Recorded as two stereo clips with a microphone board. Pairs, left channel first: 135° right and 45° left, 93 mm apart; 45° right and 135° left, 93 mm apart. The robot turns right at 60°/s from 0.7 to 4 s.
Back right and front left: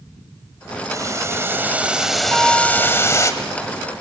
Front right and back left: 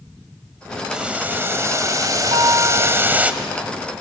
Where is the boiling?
55° left, 1.4 m; by 3.3 s 160° right, 1.4 m.